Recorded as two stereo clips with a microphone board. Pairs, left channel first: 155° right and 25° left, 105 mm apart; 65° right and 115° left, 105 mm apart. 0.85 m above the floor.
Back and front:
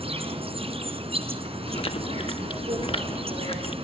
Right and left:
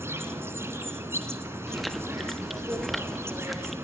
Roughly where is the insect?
Ahead left.